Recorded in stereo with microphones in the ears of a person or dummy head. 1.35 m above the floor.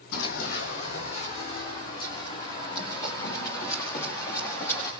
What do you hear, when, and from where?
0.1 s running footsteps: 50° left (ahead or behind), 3 m; by 4.9 s 15° left (ahead or behind), 9 m